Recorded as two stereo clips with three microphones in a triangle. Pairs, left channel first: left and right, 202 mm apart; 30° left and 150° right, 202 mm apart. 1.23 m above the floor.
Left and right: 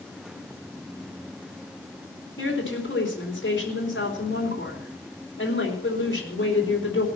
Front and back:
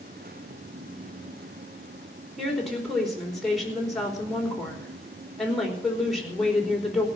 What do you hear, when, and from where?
2.4 s a woman speaking: 120° left, 4 m